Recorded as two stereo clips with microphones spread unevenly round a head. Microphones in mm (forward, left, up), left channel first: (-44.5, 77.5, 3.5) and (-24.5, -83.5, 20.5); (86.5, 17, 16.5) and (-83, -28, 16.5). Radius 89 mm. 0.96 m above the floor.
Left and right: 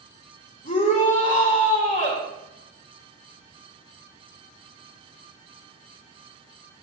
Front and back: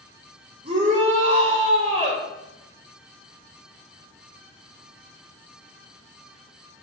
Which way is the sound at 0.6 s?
140° left.